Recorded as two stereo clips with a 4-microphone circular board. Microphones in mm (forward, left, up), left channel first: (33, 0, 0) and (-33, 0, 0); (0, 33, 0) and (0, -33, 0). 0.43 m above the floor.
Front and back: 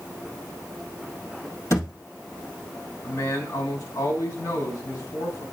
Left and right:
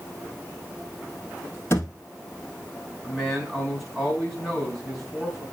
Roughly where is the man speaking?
Ahead.